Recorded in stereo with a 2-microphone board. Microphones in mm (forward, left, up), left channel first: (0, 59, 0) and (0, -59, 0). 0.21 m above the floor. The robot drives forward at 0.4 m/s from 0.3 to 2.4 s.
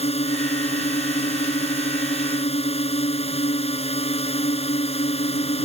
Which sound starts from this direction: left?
A drone, at 0.0 s.